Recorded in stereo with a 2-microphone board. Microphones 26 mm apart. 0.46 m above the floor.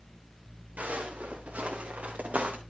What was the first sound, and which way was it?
Footsteps, 70° right (ahead or behind).